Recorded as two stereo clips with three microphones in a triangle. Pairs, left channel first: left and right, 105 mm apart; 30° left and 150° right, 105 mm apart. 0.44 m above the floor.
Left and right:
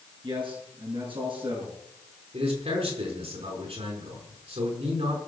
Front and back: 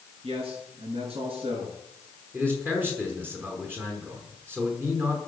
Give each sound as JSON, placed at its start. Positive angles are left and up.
{"t": 0.2, "sound": "a man speaking", "azimuth_deg": -125, "distance_m": 6.5}
{"t": 2.3, "sound": "a man speaking", "azimuth_deg": -80, "distance_m": 5.5}